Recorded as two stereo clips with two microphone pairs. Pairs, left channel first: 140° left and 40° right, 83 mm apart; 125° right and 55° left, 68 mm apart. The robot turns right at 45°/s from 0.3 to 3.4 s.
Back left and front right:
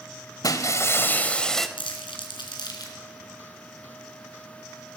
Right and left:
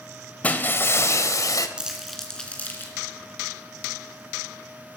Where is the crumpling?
135° left, 3.5 m; by 3.0 s 175° right, 3.5 m.